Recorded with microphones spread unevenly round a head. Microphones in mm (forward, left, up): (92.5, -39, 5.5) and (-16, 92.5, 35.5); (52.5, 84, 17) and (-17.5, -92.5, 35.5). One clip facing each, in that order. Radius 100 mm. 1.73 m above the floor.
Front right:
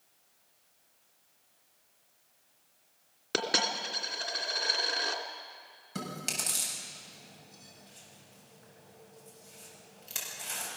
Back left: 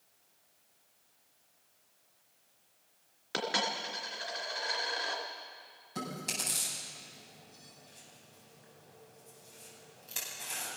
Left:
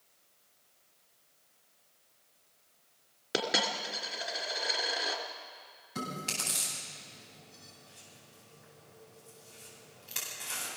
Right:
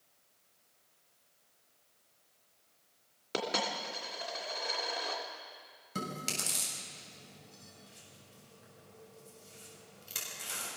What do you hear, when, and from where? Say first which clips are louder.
3.3 s a dropped coin: front right 3 dB, left 2 dB; 10° right, 2.5 m
6.0 s chewing: front right 1 dB, left 1 dB; 85° right, 7 m